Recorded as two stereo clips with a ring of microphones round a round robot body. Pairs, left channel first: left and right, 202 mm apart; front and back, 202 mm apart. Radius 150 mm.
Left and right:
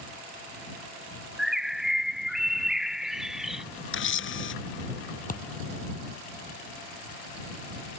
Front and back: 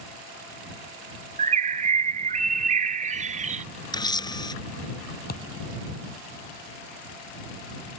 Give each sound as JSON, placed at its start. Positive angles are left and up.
{"t": 1.4, "sound": "a bird", "azimuth_deg": -175}
{"t": 3.9, "sound": "a camera shutter", "azimuth_deg": 70}
{"t": 5.3, "sound": "a thud", "azimuth_deg": 40}